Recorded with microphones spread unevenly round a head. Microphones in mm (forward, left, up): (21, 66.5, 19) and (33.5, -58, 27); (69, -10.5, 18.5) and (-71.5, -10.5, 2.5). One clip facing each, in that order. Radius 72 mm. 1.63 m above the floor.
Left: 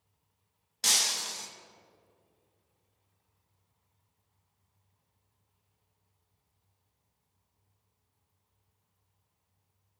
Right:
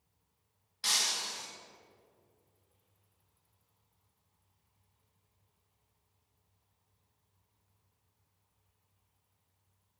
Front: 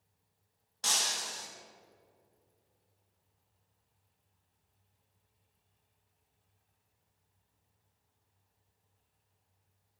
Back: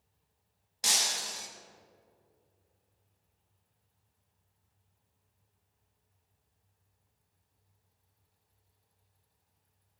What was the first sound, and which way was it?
Breaking glass, 105° left.